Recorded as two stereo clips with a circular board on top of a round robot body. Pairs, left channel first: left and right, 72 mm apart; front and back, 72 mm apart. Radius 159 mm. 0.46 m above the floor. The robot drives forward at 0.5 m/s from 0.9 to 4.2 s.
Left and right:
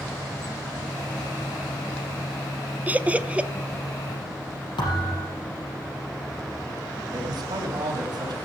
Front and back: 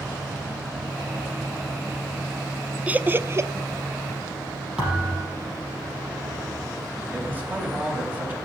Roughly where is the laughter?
Behind right.